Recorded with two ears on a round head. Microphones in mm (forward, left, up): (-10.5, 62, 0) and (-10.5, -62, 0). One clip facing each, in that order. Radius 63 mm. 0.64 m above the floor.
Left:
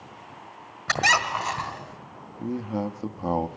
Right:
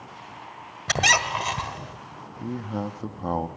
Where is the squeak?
25° right (ahead or behind), 1.4 m.